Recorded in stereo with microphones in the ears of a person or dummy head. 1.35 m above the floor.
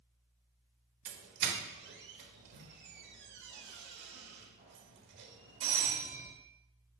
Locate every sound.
1.1 s a doorbell: 60° right (ahead or behind), 1.4 m